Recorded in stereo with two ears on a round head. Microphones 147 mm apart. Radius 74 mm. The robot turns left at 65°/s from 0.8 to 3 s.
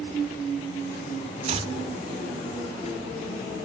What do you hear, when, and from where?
1.4 s chopping: 45° right (ahead or behind), 1.5 m; by 1.7 s 30° right (ahead or behind), 1.5 m